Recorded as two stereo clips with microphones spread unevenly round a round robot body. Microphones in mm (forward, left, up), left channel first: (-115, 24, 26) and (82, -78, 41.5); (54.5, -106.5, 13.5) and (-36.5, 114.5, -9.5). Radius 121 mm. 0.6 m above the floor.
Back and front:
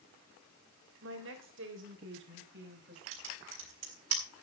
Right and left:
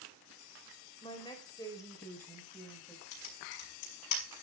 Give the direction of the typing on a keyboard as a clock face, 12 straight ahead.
2 o'clock.